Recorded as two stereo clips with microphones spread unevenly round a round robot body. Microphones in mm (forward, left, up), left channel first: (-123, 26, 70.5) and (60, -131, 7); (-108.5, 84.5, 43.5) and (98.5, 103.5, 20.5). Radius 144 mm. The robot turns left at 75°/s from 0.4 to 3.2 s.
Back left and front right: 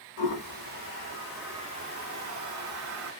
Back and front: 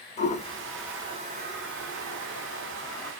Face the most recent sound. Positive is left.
turn(degrees=-85)